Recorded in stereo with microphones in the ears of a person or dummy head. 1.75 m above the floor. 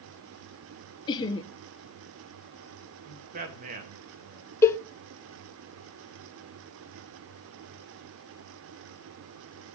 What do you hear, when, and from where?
1.1 s laughter: 20° left (ahead or behind), 0.8 m
3.0 s a man speaking: 40° right (ahead or behind), 2 m
4.6 s a cowbell: 10° left (ahead or behind), 0.6 m